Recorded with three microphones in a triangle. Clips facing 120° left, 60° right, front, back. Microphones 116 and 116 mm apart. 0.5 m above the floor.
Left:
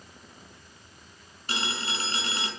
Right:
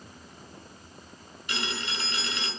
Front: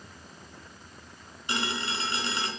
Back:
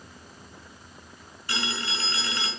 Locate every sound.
1.5 s a phone ringing: 70° left, 4 m